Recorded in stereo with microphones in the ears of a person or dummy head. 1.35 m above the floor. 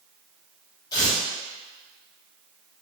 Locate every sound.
0.9 s tearing paper: 20° left (ahead or behind), 0.8 m